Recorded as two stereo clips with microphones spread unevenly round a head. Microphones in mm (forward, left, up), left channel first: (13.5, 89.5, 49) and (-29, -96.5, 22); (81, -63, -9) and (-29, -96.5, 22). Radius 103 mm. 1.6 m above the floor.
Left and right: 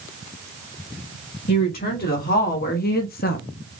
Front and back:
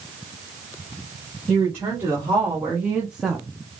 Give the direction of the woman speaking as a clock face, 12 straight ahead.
8 o'clock.